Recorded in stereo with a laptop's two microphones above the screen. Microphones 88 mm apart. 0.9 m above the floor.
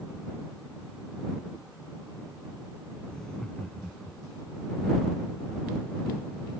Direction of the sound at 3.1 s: 10° left (ahead or behind).